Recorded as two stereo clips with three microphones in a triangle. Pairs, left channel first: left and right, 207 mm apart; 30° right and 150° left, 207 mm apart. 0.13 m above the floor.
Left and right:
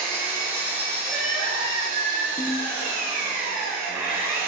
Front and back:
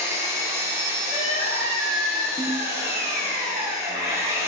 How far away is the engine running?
About 0.8 m.